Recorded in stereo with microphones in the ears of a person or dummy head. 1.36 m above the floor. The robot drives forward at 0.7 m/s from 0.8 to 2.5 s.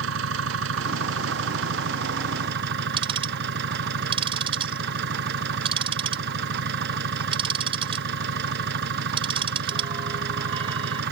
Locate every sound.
0.0 s an engine running: 75° right (ahead or behind); by 11.1 s 65° right (ahead or behind)
3.0 s ticking: 30° right (ahead or behind)